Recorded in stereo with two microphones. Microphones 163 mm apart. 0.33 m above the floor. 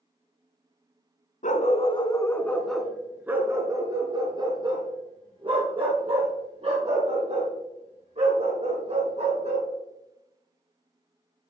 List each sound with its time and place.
1.4 s a dog barking: 50° left (ahead or behind), 0.9 m; by 9.7 s 45° right (ahead or behind), 5 m